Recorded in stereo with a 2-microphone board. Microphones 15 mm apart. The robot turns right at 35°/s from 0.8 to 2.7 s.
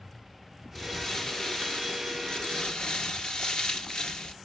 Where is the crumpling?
15° left, 1.6 m; by 4.3 s 85° left, 1.6 m.